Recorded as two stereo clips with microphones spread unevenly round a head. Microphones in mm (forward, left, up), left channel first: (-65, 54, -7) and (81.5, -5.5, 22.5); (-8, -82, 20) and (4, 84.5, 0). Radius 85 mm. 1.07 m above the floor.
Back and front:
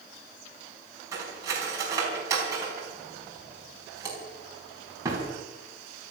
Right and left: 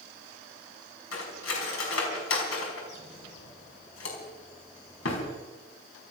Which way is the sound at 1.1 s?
95° right.